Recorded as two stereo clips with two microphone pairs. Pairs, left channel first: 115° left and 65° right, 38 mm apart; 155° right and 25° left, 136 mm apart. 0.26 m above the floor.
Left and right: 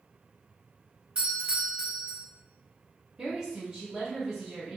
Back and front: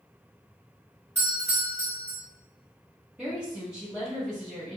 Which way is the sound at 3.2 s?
30° right.